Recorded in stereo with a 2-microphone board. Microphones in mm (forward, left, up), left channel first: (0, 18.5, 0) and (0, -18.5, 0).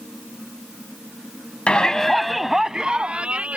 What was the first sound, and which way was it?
A shout, 30° left (ahead or behind).